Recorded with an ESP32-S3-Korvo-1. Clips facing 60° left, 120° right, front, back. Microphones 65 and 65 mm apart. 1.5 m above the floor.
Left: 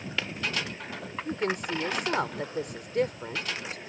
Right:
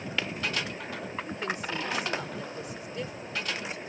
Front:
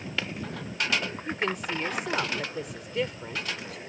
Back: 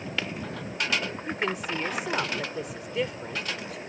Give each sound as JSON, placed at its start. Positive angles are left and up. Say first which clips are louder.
{"t": 1.2, "sound": "a woman speaking", "louder": "left 6 dB, even", "azimuth_deg": 95}